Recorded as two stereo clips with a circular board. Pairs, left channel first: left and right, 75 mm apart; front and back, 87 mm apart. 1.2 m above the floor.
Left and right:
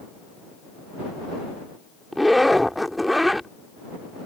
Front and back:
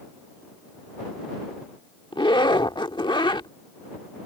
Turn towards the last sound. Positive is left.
turn(degrees=0)